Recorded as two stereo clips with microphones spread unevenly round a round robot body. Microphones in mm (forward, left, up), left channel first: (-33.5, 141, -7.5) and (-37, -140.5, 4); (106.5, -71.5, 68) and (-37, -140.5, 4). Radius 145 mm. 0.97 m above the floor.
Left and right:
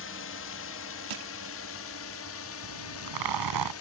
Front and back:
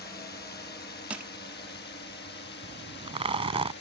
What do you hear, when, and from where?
0.0 s a drone: 60° left
1.1 s crushing: 75° right
2.6 s a zipper: 95° right